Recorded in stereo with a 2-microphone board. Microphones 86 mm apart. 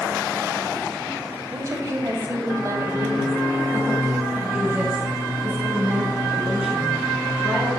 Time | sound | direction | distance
1.5 | a woman speaking | 35° right (ahead or behind) | 1.6 m